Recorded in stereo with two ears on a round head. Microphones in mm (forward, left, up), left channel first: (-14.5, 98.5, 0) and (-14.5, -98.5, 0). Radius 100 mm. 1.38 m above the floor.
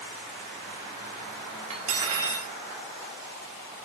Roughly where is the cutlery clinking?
Right.